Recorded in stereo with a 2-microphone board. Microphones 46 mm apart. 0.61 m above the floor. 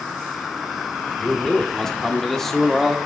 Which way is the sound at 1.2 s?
15° left (ahead or behind).